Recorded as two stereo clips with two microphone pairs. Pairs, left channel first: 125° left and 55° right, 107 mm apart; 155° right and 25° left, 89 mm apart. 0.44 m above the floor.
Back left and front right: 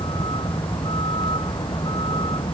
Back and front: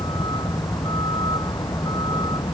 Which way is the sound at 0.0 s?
165° left.